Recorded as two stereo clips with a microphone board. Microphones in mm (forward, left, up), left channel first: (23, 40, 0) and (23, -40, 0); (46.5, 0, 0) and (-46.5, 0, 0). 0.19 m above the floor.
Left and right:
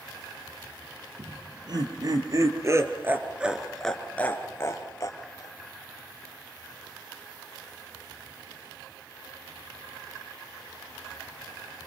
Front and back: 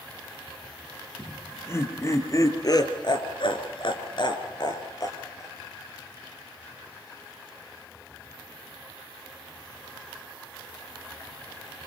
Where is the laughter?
65° right, 4.5 m; by 5.5 s 55° left, 3.5 m.